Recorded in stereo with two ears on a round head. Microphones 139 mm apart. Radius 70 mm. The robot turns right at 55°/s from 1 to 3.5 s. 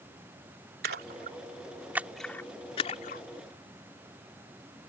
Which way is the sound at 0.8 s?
65° right (ahead or behind).